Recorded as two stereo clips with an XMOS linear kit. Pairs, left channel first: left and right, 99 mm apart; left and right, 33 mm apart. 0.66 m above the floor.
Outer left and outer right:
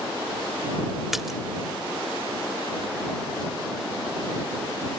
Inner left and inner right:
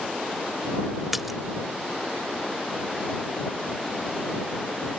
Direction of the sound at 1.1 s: Centre (ahead or behind).